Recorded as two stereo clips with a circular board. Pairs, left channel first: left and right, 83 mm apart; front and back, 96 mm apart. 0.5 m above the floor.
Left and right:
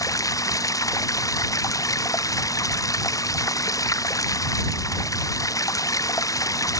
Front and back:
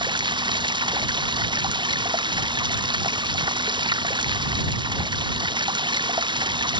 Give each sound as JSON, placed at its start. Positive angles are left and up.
{"t": 0.0, "sound": "running water", "azimuth_deg": 140}